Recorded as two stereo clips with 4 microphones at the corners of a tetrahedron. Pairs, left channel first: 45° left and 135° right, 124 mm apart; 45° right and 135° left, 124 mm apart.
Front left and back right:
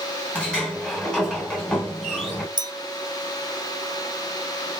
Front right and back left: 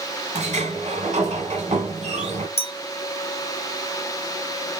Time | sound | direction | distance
0.3 | a sliding door | 125° left | 1.5 m
2.6 | a clink | 80° right | 0.8 m